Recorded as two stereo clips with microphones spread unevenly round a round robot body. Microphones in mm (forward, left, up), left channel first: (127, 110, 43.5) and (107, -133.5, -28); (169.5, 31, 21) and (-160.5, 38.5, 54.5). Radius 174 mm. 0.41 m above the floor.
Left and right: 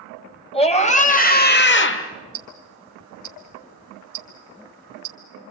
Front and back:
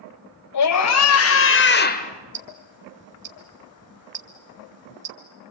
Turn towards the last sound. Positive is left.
turn(degrees=-120)